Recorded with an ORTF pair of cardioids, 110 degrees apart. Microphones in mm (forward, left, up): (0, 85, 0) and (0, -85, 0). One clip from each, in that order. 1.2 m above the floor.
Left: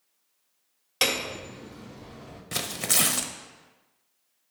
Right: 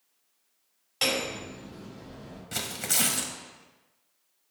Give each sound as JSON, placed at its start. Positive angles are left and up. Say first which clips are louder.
{"t": 1.0, "sound": "hammering", "louder": "left 2 dB", "azimuth_deg": 65, "distance_m": 2.0}
{"t": 2.5, "sound": "tearing paper", "louder": "left 3 dB", "azimuth_deg": 25, "distance_m": 0.7}